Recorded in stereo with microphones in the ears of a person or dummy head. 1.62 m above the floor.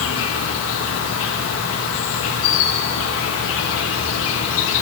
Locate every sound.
0.0 s an insect: 75° left (ahead or behind), 4.5 m